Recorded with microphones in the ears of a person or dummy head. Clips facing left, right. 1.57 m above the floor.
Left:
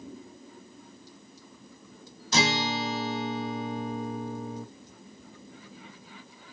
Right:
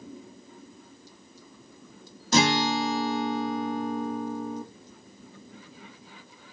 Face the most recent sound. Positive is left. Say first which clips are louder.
# right 4 dB
turn(degrees=-40)  # may be behind; listen again after turning